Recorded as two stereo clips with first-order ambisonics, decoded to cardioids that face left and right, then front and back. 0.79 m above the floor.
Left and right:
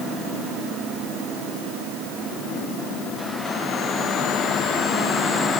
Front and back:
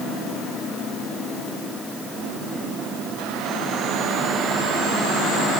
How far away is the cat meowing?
No cat meowing in this recording.